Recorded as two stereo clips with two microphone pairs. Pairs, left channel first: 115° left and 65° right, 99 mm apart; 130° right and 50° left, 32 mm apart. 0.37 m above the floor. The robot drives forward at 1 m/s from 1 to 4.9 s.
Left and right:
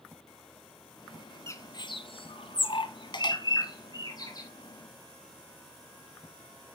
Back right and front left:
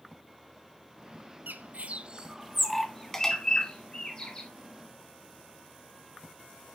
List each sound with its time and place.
1.5 s a bird: 55° left, 0.8 m; by 4.5 s 165° left, 2.5 m